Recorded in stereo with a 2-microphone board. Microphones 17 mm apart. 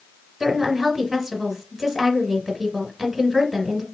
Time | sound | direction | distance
0.4 | a woman speaking | 10° right (ahead or behind) | 2.0 m